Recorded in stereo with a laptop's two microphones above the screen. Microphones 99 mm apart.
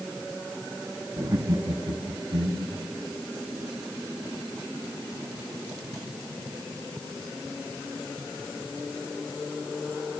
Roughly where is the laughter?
Right.